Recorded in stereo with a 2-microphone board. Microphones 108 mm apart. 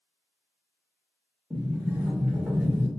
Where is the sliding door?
10° right (ahead or behind), 0.7 m.